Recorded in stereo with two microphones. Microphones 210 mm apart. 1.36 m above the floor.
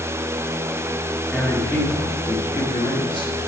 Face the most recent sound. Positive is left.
turn(degrees=25)  # may be behind; listen again after turning